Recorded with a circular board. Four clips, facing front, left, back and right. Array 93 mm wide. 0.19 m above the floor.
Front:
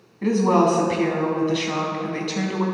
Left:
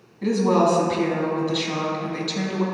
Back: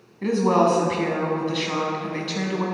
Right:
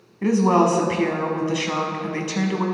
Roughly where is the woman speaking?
Right.